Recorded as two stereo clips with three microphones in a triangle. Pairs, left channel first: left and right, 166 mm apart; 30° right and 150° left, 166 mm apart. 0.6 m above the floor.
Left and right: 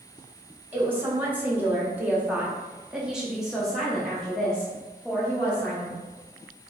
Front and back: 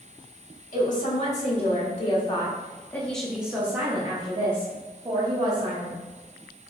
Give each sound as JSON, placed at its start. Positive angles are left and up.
{"t": 0.7, "sound": "a woman speaking", "azimuth_deg": -15, "distance_m": 1.7}